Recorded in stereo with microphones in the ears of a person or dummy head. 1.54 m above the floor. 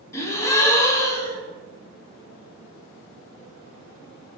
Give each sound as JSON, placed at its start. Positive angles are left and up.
{"t": 0.1, "sound": "a gasp", "side_deg": 15, "distance_m": 1.0}